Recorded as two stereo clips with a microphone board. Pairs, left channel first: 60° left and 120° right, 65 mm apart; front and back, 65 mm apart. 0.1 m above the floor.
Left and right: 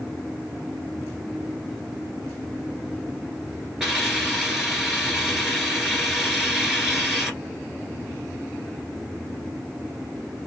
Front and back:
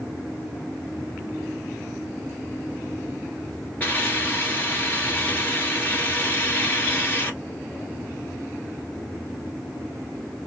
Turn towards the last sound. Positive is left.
turn(degrees=-40)